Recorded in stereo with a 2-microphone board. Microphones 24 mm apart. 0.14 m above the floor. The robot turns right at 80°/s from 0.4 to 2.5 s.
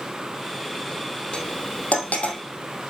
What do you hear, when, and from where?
1.3 s cutlery clinking: 40° left (ahead or behind), 2.5 m; by 2.4 s 50° left (ahead or behind), 2.5 m